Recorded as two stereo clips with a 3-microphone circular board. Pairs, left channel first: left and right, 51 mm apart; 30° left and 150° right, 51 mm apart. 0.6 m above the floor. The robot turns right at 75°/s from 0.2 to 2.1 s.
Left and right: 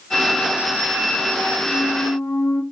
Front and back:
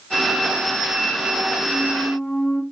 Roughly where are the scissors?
I don't hear scissors.